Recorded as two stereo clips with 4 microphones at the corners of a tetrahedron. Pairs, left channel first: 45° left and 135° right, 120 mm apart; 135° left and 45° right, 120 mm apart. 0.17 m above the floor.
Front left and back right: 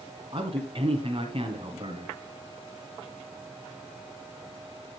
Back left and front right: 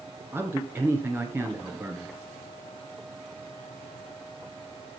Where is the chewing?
No chewing in this recording.